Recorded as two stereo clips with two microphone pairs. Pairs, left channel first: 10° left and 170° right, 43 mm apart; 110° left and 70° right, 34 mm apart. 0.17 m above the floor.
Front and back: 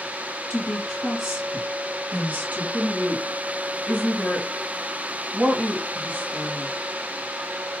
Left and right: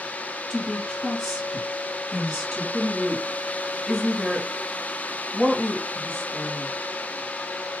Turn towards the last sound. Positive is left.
turn(degrees=-165)